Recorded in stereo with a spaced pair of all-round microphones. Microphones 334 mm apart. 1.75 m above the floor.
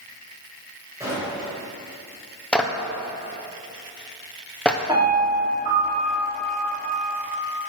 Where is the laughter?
No laughter in this recording.